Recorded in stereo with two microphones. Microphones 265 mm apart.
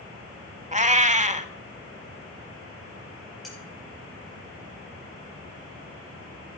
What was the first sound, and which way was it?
A cat meowing, 25° right (ahead or behind).